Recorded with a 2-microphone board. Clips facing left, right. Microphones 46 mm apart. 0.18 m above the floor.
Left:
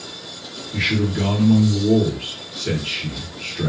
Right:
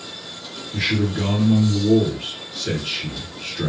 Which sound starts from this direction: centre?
A man speaking, at 0.7 s.